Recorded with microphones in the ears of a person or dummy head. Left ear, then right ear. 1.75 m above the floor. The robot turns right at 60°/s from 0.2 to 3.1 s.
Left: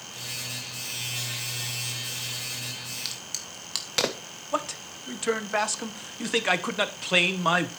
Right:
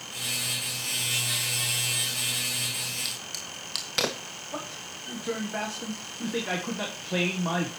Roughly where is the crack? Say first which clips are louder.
Right 1 dB; centre.